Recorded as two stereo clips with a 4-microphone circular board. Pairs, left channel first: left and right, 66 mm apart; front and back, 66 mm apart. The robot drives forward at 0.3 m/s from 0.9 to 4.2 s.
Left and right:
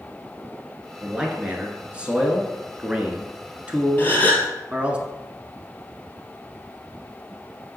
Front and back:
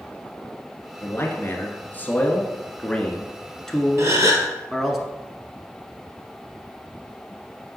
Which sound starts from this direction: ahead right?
A man speaking, at 1.0 s.